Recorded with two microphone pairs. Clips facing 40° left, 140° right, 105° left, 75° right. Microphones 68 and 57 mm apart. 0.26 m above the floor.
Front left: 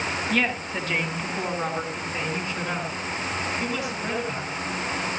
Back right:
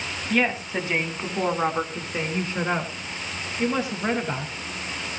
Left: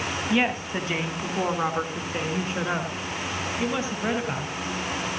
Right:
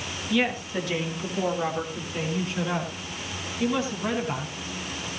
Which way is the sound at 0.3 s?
145° left.